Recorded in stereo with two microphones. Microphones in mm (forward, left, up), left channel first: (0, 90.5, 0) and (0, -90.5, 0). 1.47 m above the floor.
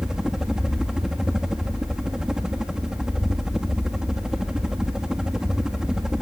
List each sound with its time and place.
0.0 s a helicopter: 5° right (ahead or behind)